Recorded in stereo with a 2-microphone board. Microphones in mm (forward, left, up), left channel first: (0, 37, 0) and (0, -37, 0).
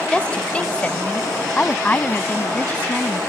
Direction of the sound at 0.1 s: 15° left (ahead or behind).